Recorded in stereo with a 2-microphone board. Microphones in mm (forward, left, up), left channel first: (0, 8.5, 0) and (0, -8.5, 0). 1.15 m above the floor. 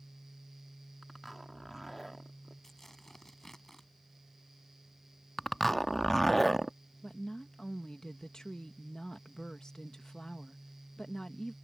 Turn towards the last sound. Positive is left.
turn(degrees=40)  # may be behind; listen again after turning